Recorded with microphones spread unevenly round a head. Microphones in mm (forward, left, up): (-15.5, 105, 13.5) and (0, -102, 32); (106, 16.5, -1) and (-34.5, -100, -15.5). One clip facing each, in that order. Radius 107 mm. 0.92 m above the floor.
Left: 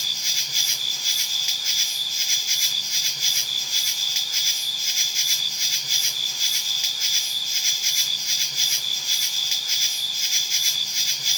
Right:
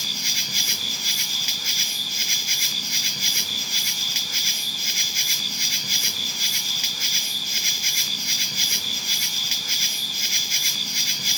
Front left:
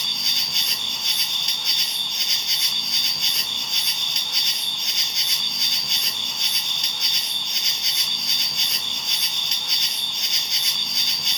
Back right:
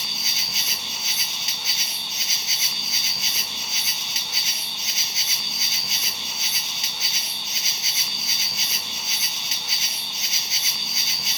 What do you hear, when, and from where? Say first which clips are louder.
0.0 s an insect: right 8 dB, even; 55° right, 1.0 m